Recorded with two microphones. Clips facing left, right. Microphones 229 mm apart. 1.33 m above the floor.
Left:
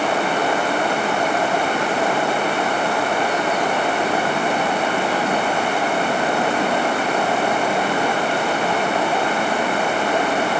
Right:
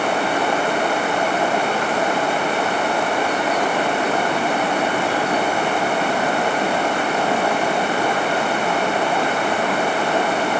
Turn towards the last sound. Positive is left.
No sound to turn to.